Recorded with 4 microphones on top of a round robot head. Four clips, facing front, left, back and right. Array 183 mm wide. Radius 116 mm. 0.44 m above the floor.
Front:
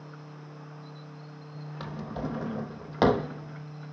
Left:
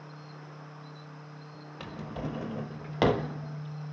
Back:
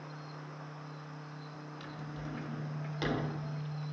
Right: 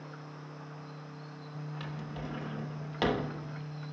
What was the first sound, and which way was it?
A drawer, 30° left.